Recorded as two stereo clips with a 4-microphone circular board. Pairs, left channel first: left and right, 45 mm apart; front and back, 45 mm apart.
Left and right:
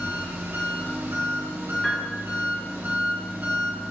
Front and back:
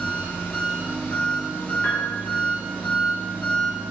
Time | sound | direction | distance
0.0 | an engine running | 55° right | 2.5 m
1.8 | a piano | 25° left | 3 m